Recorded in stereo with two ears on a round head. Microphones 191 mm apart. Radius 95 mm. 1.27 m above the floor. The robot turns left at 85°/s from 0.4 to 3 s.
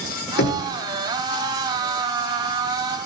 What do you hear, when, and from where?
0.4 s knocking: 50° left (ahead or behind), 1.4 m; by 0.6 s 30° left (ahead or behind), 1.4 m